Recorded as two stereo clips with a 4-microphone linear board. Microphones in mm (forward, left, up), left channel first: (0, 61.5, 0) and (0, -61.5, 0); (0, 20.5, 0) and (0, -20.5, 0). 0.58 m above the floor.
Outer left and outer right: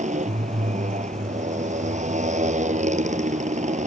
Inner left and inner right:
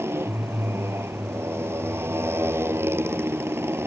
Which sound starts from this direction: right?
A motorcycle, at 0.0 s.